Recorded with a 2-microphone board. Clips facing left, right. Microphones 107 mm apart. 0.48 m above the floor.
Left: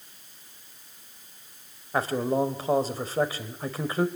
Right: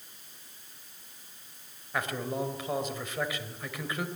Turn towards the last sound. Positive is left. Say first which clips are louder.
# left 7 dB
turn(degrees=30)  # may be behind; listen again after turning